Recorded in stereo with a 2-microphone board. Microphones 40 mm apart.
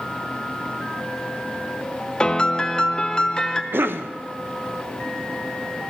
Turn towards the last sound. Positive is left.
turn(degrees=-65)  # may be behind; listen again after turning